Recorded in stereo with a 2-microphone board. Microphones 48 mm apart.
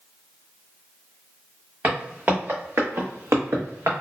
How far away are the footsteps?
About 1.6 m.